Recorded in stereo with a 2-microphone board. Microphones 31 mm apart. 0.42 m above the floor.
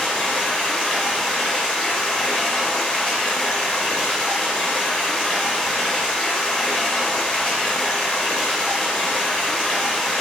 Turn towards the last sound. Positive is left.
turn(degrees=20)  # may be behind; listen again after turning